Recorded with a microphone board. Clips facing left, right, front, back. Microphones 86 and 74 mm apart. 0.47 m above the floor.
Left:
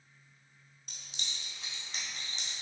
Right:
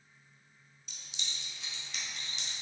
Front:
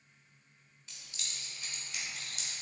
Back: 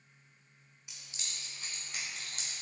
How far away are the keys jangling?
About 1.2 m.